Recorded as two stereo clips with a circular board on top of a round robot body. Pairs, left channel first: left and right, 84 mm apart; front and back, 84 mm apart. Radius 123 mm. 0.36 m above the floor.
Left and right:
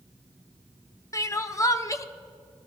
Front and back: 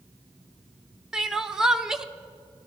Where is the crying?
100° left, 0.8 m.